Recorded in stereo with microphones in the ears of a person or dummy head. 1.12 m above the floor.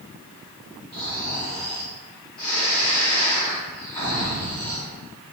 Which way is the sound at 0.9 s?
25° left (ahead or behind).